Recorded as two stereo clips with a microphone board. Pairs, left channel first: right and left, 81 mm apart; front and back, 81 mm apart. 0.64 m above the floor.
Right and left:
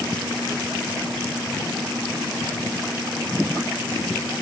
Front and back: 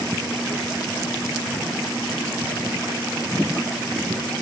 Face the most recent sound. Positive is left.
No sound to turn to.